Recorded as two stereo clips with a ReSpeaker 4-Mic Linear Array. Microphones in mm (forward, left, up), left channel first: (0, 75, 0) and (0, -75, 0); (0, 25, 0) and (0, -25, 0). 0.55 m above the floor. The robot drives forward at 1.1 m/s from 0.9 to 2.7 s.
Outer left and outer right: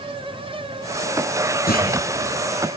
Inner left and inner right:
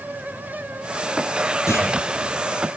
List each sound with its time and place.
1.7 s a clunk: 85° left, 4 m; by 1.9 s 80° left, 4 m